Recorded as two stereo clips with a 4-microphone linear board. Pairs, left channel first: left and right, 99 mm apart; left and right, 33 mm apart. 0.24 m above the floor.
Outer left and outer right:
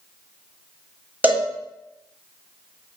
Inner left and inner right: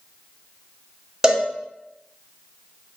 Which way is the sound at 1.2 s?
15° right (ahead or behind).